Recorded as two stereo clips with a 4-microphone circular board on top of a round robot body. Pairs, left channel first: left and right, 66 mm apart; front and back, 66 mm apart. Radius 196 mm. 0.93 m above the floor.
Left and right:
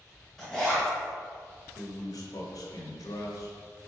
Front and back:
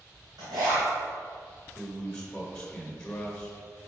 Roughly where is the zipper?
Behind.